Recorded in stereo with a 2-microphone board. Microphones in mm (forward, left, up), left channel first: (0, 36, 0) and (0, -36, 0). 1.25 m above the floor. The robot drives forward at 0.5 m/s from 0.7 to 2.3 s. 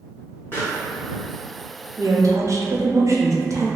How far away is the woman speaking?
About 0.7 m.